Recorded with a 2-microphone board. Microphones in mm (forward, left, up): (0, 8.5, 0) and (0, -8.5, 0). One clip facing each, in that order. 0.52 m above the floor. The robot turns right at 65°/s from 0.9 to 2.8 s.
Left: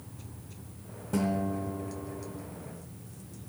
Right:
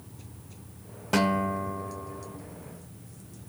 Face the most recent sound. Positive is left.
turn(degrees=10)